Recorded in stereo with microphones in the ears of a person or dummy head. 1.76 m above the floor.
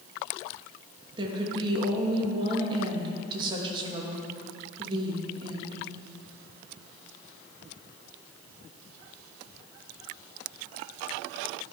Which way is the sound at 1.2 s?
20° right (ahead or behind).